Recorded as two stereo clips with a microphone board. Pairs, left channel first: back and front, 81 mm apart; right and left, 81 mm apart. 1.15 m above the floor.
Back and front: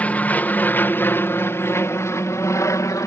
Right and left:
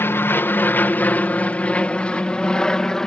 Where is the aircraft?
125° right; by 3.1 s 170° right.